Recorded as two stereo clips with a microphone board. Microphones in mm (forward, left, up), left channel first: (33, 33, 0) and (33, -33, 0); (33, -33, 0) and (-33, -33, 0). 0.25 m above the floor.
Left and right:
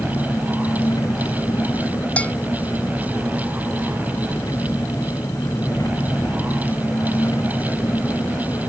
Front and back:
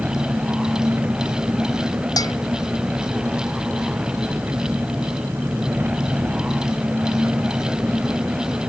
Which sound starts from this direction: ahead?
A bell, at 2.2 s.